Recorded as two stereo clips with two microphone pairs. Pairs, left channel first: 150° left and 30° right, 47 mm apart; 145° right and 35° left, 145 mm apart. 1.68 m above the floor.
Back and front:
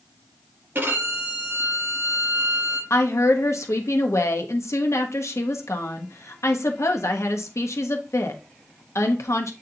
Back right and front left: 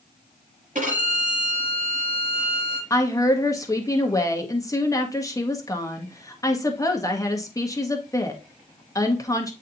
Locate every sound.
0.8 s a violin: 10° left, 5 m
2.9 s a woman speaking: 150° left, 1.2 m